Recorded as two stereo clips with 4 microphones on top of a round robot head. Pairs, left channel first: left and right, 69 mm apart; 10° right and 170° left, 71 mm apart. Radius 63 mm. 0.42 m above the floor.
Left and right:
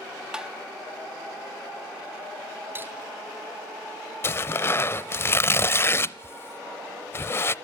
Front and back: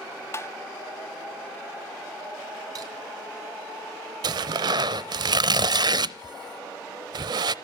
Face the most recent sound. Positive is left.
turn(degrees=145)